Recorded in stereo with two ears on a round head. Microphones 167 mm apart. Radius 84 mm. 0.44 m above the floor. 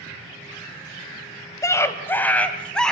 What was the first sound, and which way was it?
A scream, 20° left (ahead or behind).